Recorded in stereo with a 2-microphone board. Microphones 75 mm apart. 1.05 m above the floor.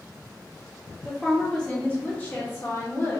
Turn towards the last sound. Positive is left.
turn(degrees=35)  # may be behind; listen again after turning